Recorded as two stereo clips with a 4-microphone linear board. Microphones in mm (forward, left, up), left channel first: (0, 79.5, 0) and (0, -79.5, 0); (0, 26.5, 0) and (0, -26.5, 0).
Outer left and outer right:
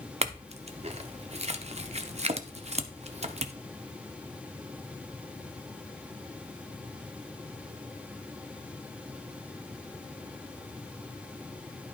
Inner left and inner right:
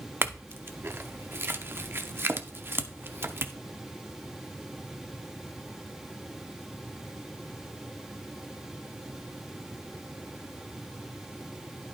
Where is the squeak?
No squeak in this recording.